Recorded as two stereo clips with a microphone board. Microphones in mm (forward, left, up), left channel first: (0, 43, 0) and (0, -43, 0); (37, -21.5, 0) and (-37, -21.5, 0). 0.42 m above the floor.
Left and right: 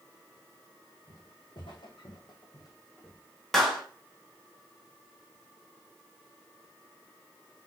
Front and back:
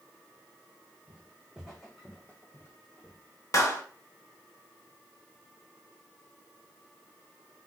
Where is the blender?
No blender in this recording.